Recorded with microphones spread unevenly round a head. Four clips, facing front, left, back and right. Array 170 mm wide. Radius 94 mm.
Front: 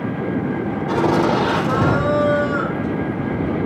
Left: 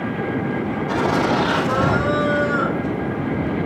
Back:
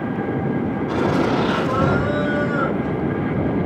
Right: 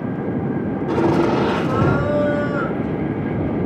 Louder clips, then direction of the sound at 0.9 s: Right 3 dB, front 3 dB; 75° right.